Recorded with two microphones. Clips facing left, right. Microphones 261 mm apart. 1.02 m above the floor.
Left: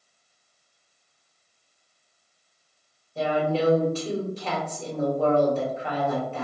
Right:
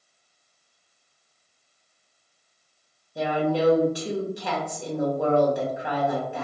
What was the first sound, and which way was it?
A woman speaking, 15° right (ahead or behind).